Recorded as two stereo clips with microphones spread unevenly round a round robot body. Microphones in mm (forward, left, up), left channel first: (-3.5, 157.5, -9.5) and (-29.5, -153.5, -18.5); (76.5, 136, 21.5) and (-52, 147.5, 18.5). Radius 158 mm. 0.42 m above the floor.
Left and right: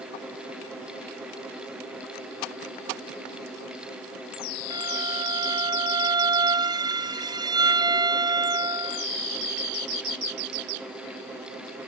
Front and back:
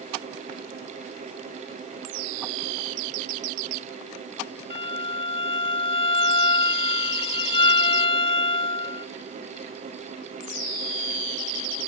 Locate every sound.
4.7 s a violin: 25° right